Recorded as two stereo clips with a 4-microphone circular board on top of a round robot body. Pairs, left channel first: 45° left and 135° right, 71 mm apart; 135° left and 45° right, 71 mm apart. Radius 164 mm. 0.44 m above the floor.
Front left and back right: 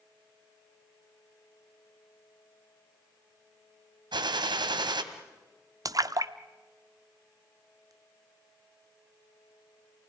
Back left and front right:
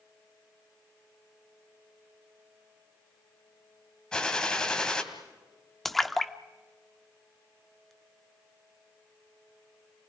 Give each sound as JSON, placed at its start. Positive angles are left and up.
{"t": 4.1, "sound": "a gunshot", "azimuth_deg": -145, "distance_m": 2.0}
{"t": 5.8, "sound": "a splash", "azimuth_deg": -140, "distance_m": 1.2}